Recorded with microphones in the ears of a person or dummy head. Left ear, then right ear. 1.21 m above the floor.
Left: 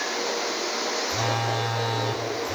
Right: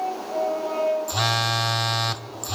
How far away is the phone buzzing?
About 0.6 m.